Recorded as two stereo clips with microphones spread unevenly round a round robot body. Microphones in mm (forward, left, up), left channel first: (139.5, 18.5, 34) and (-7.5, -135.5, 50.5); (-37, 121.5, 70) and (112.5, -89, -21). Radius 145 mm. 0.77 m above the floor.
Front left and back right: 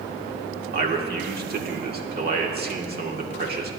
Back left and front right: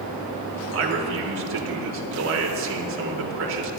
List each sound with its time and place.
0.7 s a man speaking: 90° right, 2 m